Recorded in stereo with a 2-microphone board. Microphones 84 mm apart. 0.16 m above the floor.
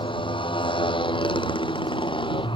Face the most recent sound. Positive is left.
turn(degrees=85)